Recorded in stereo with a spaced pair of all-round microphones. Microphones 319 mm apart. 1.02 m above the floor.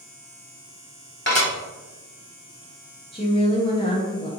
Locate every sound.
1.3 s dishes clattering: 35° left (ahead or behind), 1.4 m
3.1 s a woman speaking: 15° left (ahead or behind), 0.7 m